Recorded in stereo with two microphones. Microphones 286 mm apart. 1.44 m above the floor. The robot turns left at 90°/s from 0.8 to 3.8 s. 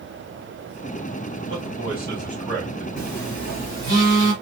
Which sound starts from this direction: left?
A phone buzzing, at 3.0 s.